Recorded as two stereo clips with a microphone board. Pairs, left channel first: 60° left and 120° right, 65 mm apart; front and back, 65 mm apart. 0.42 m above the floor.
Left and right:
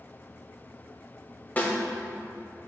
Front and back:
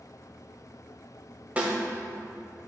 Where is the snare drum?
120° left, 1.9 m.